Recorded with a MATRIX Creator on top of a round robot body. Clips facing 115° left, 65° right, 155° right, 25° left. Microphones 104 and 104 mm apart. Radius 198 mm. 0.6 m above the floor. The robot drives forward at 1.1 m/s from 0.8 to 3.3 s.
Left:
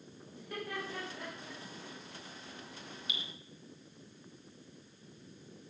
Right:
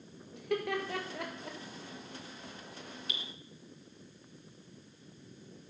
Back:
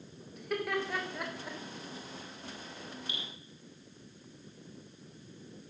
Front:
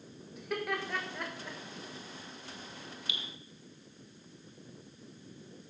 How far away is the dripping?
About 1.3 m.